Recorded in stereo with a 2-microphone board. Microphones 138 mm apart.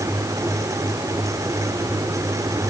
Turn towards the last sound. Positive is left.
No sound to turn to.